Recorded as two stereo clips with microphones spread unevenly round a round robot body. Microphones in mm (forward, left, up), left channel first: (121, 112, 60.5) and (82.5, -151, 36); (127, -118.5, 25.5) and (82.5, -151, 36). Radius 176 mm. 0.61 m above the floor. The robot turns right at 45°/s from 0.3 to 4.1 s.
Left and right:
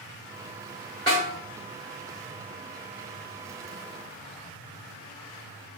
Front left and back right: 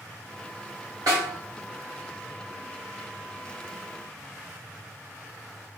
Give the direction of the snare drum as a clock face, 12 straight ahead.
7 o'clock.